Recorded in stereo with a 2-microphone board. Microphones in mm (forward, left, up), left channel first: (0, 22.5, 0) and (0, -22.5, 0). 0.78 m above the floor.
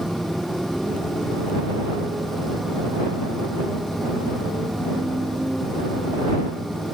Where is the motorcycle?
5° right (ahead or behind).